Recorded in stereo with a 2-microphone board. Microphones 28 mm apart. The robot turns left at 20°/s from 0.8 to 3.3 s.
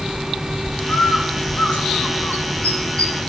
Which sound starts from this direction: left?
A bird, at 0.9 s.